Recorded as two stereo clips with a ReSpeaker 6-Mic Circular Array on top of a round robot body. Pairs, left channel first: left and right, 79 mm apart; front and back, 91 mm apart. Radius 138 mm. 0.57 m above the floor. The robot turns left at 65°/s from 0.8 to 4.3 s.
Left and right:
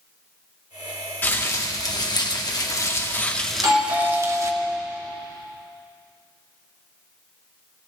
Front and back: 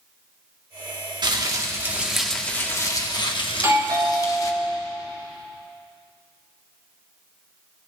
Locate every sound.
1.2 s crumpling: 150° left, 2 m; by 4.5 s 50° right, 2 m
3.5 s a doorbell: 115° right, 4 m; by 4.8 s 165° right, 4 m